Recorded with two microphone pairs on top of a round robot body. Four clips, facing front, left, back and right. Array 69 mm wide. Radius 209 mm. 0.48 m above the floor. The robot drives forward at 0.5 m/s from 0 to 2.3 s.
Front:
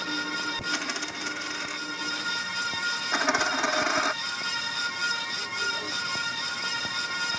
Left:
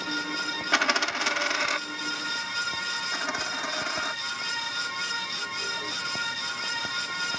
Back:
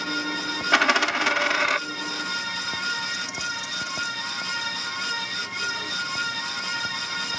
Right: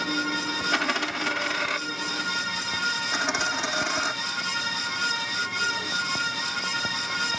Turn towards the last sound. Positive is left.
turn(degrees=-10)